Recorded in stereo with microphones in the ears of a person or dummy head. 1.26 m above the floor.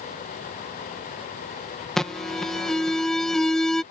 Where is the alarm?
5° left (ahead or behind).